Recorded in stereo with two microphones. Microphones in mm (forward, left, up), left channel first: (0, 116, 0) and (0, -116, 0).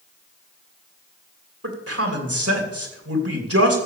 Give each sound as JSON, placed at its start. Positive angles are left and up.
{"t": 1.6, "sound": "a man speaking", "side_deg": -85, "distance_m": 3.0}